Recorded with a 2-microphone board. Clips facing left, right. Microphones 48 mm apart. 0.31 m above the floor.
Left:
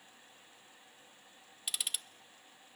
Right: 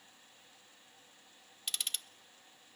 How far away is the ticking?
About 0.6 m.